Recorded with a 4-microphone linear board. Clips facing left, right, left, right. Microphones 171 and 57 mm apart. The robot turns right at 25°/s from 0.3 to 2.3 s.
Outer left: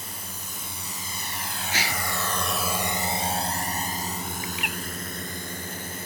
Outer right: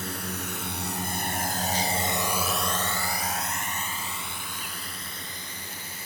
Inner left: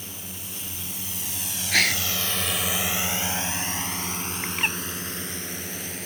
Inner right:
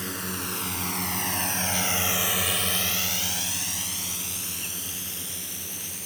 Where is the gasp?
80° left; by 2.0 s 75° left (ahead or behind).